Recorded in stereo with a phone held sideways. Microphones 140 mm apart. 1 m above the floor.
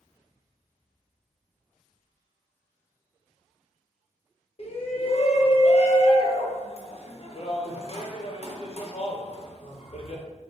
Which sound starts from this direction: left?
A shout, at 4.6 s.